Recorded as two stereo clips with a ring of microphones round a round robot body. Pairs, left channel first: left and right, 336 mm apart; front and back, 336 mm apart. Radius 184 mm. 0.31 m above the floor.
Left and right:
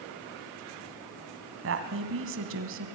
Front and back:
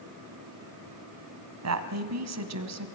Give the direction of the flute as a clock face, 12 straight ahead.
I don't hear a flute.